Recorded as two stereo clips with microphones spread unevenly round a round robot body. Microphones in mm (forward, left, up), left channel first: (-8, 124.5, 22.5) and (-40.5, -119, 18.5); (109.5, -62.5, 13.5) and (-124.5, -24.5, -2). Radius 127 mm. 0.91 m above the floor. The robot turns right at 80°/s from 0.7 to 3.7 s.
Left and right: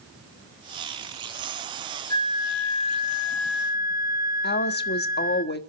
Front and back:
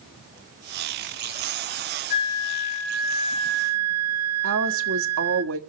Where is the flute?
5° left, 2.0 m; by 5.4 s 135° left, 2.0 m.